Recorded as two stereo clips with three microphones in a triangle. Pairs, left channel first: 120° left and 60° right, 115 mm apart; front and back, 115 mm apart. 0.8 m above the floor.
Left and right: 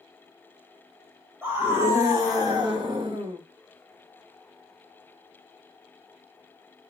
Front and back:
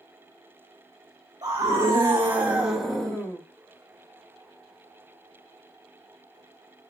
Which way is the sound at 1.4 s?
125° right.